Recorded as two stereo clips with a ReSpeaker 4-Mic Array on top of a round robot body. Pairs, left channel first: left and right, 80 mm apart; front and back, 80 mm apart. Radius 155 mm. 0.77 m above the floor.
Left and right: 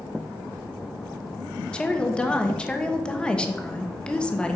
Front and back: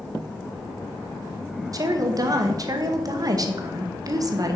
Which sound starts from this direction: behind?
A woman speaking, at 1.7 s.